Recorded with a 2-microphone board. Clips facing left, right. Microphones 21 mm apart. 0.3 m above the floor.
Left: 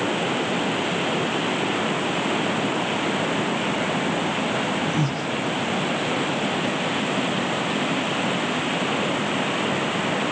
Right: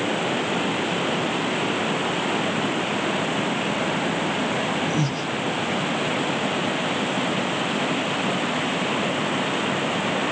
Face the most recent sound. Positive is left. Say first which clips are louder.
# even
turn(degrees=-40)  # may be behind; listen again after turning